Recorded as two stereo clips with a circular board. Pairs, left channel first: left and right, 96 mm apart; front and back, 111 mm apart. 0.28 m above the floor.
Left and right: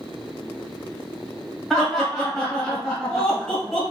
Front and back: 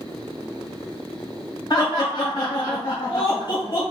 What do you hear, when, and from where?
1.7 s laughter: 5° left, 1.6 m